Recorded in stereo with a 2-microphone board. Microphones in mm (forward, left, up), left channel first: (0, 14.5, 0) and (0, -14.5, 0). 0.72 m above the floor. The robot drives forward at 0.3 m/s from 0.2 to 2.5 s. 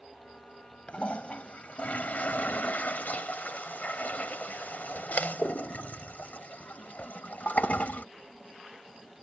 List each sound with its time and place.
0.9 s a toilet flushing: 50° left (ahead or behind); by 8.1 s 65° left (ahead or behind)